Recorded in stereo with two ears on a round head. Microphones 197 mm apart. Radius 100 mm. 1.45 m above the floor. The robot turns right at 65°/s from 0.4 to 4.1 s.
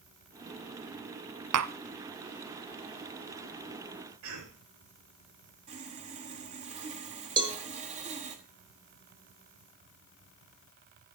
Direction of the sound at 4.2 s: 85° right.